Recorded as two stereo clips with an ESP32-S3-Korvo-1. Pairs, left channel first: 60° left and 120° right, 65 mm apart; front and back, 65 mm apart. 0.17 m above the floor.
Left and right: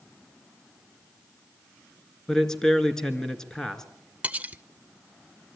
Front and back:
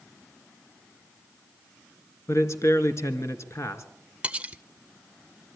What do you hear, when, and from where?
2.3 s a man speaking: 20° right, 2 m
4.2 s cutlery clinking: 145° right, 0.7 m